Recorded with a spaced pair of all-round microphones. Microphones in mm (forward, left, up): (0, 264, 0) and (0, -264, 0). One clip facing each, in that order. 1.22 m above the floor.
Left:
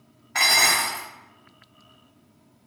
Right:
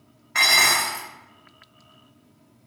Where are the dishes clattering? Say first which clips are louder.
Even; 10° left (ahead or behind), 0.9 m.